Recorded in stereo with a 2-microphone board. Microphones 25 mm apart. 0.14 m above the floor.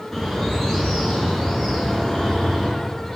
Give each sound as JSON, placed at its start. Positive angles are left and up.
{"t": 0.1, "sound": "a bird", "side_deg": 10, "distance_m": 2.0}